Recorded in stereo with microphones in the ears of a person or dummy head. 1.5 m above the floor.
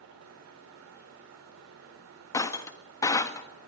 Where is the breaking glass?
20° left (ahead or behind), 1.4 m.